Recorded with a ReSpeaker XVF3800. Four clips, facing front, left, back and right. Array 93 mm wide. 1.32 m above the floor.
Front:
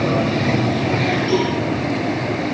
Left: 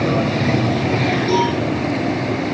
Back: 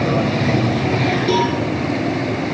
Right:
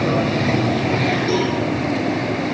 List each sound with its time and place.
1.3 s a cowbell: 175° right, 10 m